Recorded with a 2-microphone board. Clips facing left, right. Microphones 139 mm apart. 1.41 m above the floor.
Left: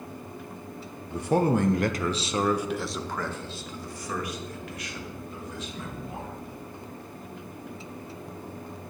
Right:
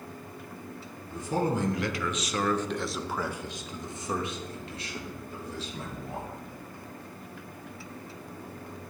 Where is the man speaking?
70° left (ahead or behind), 0.9 m; by 6.3 s 35° right (ahead or behind), 3 m.